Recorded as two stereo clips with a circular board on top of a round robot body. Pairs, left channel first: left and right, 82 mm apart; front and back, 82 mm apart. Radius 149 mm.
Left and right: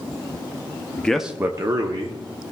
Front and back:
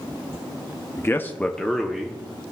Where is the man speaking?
30° left, 0.8 m; by 2.2 s 100° right, 1.4 m.